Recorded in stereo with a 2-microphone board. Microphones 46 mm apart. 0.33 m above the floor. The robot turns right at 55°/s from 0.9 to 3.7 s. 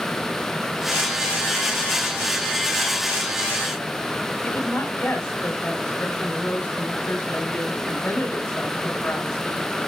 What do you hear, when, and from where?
4.4 s a woman speaking: 65° left (ahead or behind), 5 m